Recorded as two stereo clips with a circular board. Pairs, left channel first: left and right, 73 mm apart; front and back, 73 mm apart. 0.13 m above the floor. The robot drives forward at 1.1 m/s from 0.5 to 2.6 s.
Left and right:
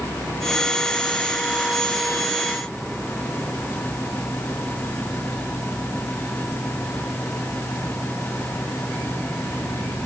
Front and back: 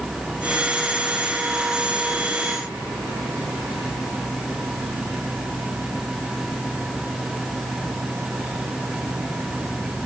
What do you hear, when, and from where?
Only background noise.